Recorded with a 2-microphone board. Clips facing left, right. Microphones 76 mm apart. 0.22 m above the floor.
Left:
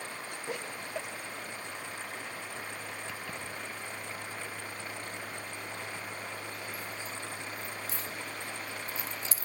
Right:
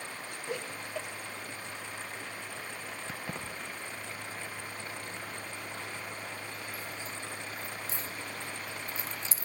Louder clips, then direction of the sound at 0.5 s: Right 1 dB; 10° left (ahead or behind).